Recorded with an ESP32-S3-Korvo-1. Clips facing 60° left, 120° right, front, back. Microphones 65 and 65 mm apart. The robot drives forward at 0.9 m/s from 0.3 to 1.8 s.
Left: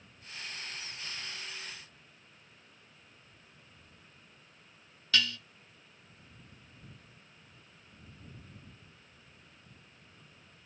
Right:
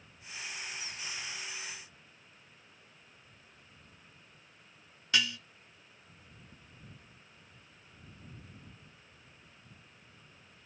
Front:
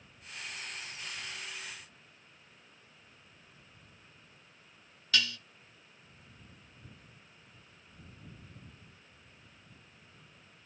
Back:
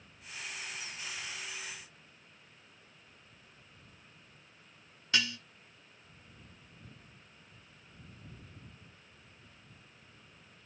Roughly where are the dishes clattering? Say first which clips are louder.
Left 1 dB, front 1 dB; behind.